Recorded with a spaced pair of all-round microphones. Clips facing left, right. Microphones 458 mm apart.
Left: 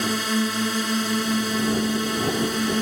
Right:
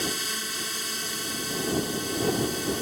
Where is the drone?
75° left (ahead or behind); by 2.8 s 80° left.